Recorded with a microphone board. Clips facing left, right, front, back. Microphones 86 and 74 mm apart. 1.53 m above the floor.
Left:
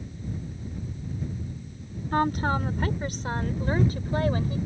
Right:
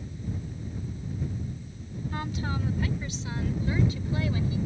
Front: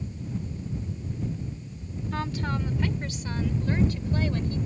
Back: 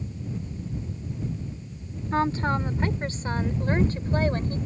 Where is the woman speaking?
125° left; by 4.6 s 130° left.